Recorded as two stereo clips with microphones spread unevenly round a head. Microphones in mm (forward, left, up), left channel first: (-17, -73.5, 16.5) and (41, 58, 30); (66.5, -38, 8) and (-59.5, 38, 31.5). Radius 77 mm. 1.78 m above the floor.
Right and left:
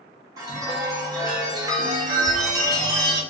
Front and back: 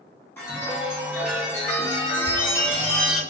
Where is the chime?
50° left, 0.7 m.